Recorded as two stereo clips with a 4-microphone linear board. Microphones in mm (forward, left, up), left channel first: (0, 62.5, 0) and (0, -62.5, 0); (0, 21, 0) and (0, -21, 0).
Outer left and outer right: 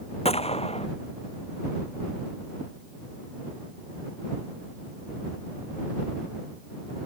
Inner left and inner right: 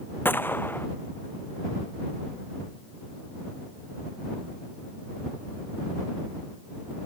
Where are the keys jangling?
No keys jangling in this recording.